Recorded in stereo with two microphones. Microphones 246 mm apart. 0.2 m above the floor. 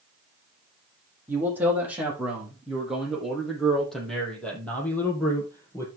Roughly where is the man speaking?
Centre.